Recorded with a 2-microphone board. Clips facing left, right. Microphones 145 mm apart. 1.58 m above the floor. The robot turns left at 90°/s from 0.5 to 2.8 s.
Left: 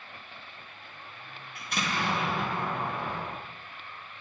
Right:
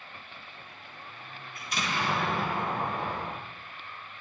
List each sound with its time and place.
1.6 s an explosion: 75° left, 3 m; by 3.3 s 40° right, 3 m